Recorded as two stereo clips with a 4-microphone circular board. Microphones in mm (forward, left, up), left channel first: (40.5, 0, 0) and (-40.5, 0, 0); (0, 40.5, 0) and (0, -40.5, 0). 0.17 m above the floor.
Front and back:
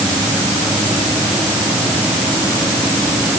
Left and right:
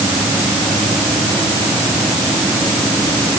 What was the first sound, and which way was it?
Only background noise.